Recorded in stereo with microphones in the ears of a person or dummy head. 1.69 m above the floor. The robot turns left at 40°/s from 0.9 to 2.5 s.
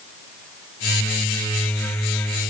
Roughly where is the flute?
No flute in this recording.